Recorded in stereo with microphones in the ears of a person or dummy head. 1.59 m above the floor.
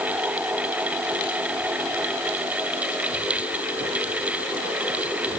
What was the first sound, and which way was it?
Only background noise.